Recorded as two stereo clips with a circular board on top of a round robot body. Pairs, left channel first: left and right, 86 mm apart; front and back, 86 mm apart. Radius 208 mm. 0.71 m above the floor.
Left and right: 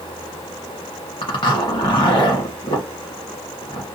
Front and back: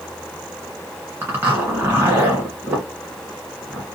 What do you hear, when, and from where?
1.2 s a zipper: 115° left, 1.4 m